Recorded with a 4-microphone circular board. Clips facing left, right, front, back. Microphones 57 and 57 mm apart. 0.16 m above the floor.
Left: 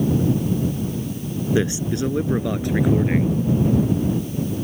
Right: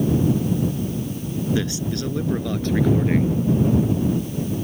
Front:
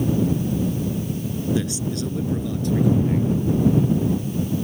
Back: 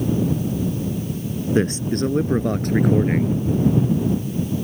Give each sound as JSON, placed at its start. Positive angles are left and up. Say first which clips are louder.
{"t": 1.6, "sound": "a man speaking", "louder": "left 3 dB, back 5 dB", "azimuth_deg": 150}